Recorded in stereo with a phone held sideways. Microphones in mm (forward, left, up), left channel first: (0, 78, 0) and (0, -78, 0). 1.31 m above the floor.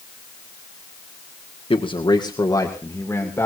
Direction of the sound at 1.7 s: 35° left (ahead or behind).